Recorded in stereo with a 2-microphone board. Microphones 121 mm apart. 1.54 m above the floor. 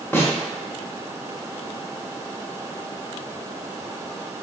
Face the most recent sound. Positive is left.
turn(degrees=15)  # may be behind; listen again after turning